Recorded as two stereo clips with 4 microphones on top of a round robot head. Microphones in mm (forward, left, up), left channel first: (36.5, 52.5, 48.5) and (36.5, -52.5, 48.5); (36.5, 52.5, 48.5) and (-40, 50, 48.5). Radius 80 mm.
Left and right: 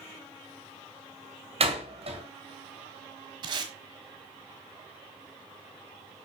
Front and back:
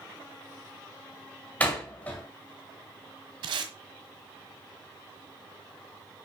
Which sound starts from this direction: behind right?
Tape being pulled, at 3.4 s.